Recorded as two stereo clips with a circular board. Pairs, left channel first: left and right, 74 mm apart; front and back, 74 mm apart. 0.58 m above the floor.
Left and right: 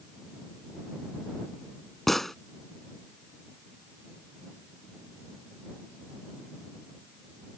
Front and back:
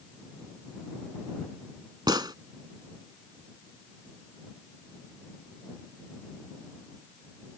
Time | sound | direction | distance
2.1 | a gunshot | straight behind | ?